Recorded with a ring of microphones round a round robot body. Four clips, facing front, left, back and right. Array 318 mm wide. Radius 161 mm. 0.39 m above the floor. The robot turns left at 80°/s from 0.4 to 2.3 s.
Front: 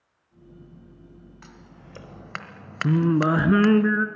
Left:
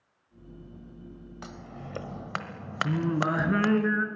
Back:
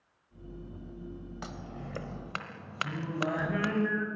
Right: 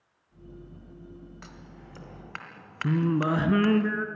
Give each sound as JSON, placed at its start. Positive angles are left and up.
{"t": 1.4, "sound": "scissors", "azimuth_deg": 150, "distance_m": 1.3}
{"t": 2.8, "sound": "singing", "azimuth_deg": -10, "distance_m": 1.3}